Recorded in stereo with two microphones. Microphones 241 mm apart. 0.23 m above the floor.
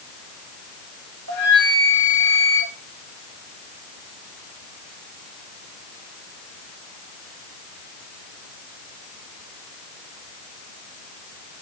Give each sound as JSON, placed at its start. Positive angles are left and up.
{"t": 1.3, "sound": "a flute", "side_deg": -70, "distance_m": 5.0}